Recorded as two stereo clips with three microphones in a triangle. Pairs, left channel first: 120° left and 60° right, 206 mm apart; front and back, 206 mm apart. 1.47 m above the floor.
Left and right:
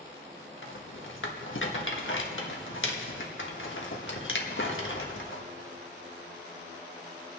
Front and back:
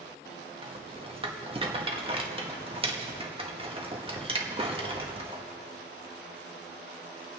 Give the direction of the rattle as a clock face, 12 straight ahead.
8 o'clock.